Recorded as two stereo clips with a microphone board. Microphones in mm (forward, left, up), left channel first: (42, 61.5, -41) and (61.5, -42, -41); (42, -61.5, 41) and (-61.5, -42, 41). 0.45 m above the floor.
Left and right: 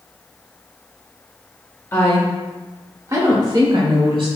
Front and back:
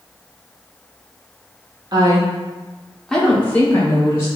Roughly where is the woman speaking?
Behind left.